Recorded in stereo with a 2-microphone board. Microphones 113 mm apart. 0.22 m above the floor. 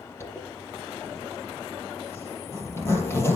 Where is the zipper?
20° left (ahead or behind), 4 m.